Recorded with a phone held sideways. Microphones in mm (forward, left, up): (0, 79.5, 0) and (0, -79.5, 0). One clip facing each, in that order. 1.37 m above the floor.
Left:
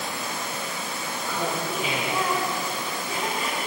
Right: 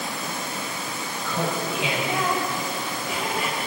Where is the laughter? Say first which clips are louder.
Right 2 dB; 85° right, 6.5 m; by 3.6 s 90° right, 8.5 m.